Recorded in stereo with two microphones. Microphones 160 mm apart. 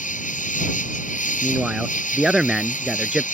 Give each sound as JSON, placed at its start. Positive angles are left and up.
{"t": 0.0, "sound": "an insect", "side_deg": 55}
{"t": 1.4, "sound": "a man speaking", "side_deg": -5}